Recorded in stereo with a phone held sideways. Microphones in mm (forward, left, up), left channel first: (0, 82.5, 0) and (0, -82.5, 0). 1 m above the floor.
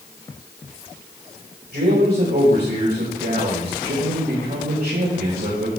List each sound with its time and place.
1.7 s a man speaking: 80° right, 4.5 m